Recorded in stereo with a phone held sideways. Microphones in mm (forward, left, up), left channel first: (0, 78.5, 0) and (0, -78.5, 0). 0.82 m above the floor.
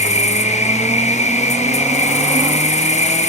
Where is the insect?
45° left (ahead or behind), 0.9 m.